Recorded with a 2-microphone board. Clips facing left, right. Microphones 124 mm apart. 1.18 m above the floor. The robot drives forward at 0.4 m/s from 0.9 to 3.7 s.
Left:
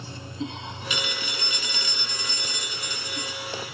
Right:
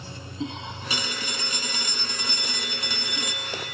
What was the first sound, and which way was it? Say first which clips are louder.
A phone ringing: even; 35° right (ahead or behind).